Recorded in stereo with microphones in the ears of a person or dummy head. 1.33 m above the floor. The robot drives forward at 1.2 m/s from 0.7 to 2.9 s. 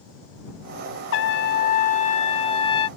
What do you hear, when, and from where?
1.1 s a trumpet: 65° left (ahead or behind); by 2.9 s 25° left (ahead or behind)